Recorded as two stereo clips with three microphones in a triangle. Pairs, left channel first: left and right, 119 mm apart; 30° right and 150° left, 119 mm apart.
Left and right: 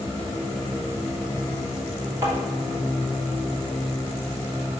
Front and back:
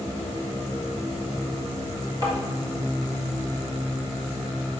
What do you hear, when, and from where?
2.2 s tapping: 155° right, 3 m